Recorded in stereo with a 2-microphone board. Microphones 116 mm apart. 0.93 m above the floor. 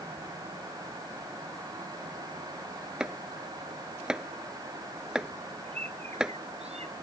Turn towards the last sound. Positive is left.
turn(degrees=-65)  # may be behind; listen again after turning